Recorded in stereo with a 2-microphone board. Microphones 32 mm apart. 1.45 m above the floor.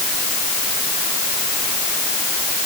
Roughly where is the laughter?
No laughter in this recording.